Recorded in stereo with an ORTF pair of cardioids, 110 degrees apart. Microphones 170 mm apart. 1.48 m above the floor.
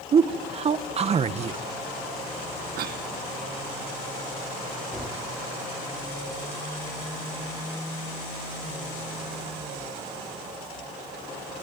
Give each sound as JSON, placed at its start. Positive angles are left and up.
{"t": 0.1, "sound": "a man speaking", "azimuth_deg": -40, "distance_m": 1.2}
{"t": 2.8, "sound": "a cough", "azimuth_deg": -70, "distance_m": 1.7}
{"t": 4.9, "sound": "a gunshot", "azimuth_deg": 5, "distance_m": 4.5}